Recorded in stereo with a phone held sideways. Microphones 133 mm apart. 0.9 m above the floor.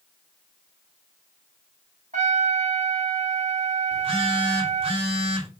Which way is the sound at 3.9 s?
45° right (ahead or behind).